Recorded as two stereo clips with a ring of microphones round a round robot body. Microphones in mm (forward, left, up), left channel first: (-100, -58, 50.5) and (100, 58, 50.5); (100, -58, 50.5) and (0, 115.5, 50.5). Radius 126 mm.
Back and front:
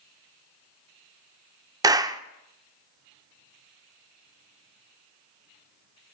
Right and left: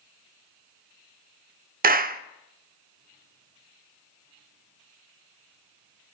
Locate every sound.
1.8 s a clap: 100° left, 0.7 m